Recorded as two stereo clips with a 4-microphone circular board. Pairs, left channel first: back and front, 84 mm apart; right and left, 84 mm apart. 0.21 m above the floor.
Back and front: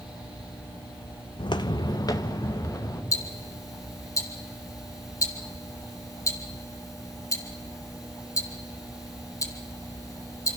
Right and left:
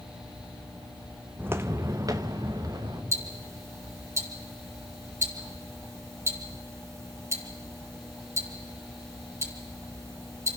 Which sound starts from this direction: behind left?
Ticking, at 3.1 s.